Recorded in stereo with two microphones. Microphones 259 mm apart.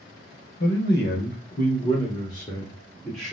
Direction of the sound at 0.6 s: 45° left (ahead or behind).